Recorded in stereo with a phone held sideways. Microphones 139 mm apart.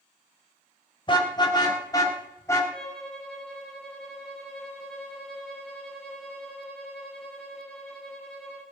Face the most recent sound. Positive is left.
turn(degrees=5)  # may be behind; listen again after turning